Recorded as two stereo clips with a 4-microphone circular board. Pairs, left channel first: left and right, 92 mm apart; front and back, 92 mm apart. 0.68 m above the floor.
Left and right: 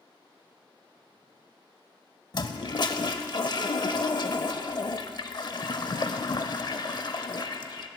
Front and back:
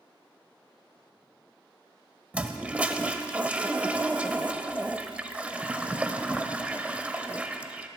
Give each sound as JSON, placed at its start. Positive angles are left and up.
{"t": 2.3, "sound": "a toilet flushing", "azimuth_deg": 110, "distance_m": 0.6}